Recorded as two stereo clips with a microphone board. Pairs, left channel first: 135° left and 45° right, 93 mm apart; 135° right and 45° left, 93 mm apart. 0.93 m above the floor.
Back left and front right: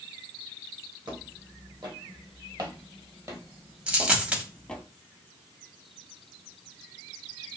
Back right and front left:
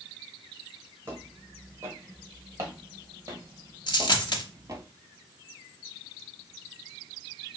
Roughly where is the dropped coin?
Behind right.